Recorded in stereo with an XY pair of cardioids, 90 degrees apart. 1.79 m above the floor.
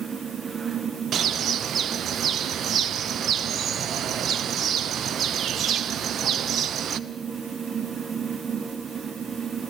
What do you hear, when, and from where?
0.0 s a fan: 40° right, 1.0 m
1.1 s a bird: 70° right, 0.9 m